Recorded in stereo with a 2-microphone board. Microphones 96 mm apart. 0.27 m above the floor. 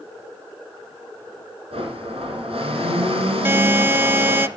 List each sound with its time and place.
1.7 s a blender: 75° right (ahead or behind), 5.5 m
3.5 s a buzzer: 25° right (ahead or behind), 0.5 m